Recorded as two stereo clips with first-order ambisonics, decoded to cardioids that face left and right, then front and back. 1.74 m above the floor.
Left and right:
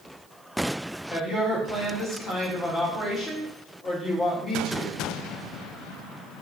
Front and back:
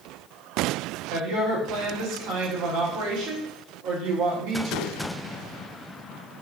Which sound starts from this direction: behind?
A woman speaking, at 1.1 s.